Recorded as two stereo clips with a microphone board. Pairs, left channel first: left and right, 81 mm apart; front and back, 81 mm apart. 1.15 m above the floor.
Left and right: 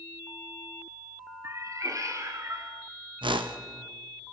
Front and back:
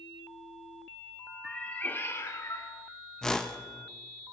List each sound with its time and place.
1.4 s a cat meowing: 85° right, 0.8 m; by 2.7 s 40° right, 1.5 m
3.2 s a whoosh: 85° right, 0.8 m